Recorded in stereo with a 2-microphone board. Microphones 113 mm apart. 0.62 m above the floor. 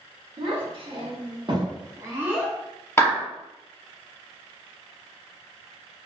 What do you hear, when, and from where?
0.4 s a child speaking: 55° right (ahead or behind), 1.1 m; by 2.5 s 5° right (ahead or behind), 0.7 m
3.0 s a clap: 20° left (ahead or behind), 1.0 m